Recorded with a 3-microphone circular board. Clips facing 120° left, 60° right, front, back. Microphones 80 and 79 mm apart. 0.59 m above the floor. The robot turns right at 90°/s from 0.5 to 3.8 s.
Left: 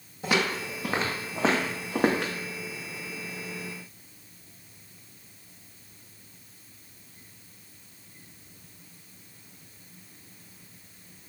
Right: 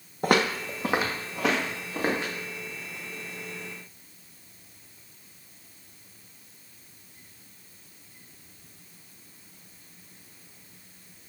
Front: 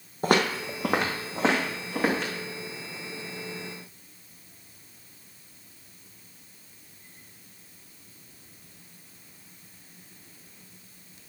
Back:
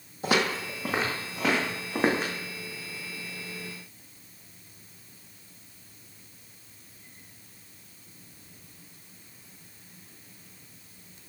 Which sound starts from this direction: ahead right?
Footsteps, at 0.2 s.